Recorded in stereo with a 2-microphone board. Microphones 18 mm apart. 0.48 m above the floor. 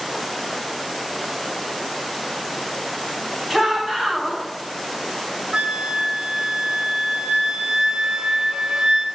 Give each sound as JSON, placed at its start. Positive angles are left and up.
{"t": 3.5, "sound": "a shout", "side_deg": -15, "distance_m": 2.5}
{"t": 5.5, "sound": "a flute", "side_deg": -60, "distance_m": 0.6}